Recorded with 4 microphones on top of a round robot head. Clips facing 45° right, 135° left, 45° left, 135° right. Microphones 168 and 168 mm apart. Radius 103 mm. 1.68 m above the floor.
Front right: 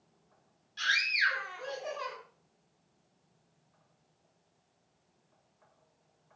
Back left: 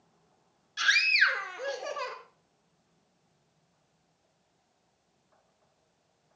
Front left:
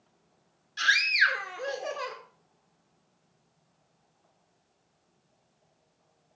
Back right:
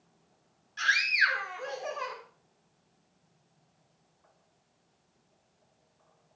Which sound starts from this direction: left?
A scream, at 0.8 s.